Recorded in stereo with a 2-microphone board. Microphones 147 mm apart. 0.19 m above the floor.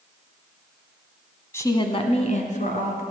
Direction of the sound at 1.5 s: 15° left (ahead or behind).